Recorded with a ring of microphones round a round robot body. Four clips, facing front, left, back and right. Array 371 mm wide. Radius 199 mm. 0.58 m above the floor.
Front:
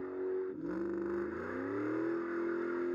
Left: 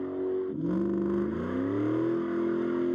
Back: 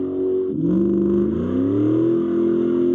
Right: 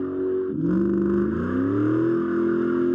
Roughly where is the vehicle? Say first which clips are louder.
Right 6 dB, back 16 dB; behind.